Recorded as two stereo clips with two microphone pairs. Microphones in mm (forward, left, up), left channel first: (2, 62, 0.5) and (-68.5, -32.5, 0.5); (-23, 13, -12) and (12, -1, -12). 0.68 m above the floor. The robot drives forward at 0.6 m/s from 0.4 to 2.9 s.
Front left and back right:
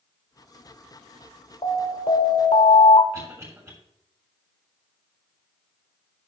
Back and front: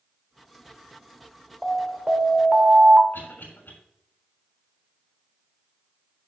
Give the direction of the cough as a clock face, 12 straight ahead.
6 o'clock.